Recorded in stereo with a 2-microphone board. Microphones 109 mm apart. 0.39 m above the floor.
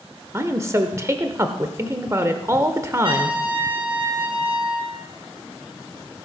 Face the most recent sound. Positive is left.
turn(degrees=-55)  # may be behind; listen again after turning